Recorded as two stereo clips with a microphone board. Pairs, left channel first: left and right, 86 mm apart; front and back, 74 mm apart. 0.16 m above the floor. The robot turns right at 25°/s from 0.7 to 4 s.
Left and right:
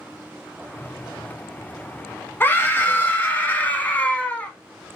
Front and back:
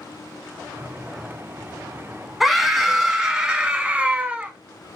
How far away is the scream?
About 1.0 m.